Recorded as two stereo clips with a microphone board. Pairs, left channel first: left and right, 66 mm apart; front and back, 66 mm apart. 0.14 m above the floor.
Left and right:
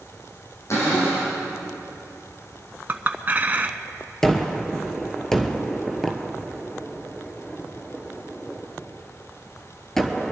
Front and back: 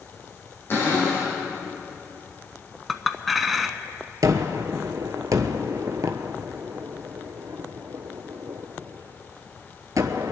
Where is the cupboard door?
50° left, 5 m.